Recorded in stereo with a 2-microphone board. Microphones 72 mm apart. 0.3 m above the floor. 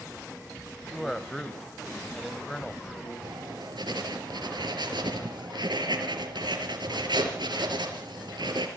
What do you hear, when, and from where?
0.9 s a man speaking: 5° left (ahead or behind), 1.8 m
3.2 s writing: 80° right, 4.5 m